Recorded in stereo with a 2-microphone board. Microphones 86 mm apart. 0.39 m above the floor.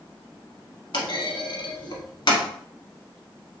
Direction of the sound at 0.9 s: 60° left (ahead or behind).